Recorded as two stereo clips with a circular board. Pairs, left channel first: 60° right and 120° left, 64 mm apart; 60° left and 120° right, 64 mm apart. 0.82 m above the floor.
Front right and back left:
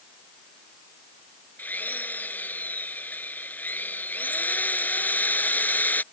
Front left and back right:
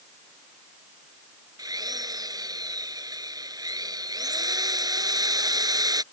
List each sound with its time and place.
1.6 s a drill: 120° right